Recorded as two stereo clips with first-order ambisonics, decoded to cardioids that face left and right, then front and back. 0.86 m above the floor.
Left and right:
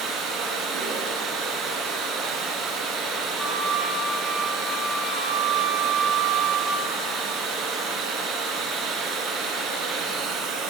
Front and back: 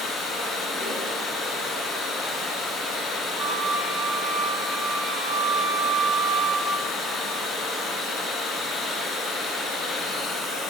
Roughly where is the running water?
Ahead right.